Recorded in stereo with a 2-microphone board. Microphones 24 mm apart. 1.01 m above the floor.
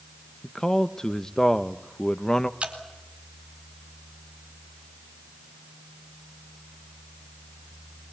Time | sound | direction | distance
0.4 | a man speaking | 25° left (ahead or behind) | 0.7 m
2.6 | dripping | 50° right (ahead or behind) | 4 m